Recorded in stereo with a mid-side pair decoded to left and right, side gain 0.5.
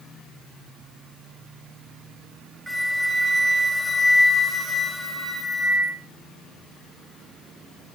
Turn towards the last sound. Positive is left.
turn(degrees=-5)